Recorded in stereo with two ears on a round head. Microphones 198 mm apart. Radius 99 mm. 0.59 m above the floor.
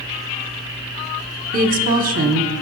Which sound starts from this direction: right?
A woman speaking, at 1.5 s.